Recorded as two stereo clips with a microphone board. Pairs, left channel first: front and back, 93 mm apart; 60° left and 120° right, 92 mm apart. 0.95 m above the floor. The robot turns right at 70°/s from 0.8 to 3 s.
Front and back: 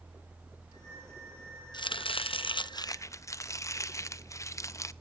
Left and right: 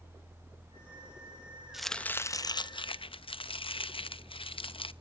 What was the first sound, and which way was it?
Chopping, 35° right.